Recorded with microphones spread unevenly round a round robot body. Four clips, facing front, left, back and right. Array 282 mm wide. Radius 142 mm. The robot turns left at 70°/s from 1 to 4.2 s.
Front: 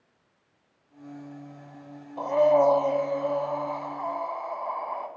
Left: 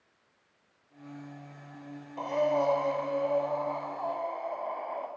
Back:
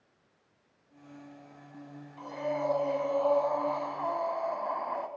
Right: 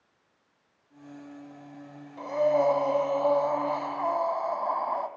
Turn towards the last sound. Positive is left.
turn(degrees=-130)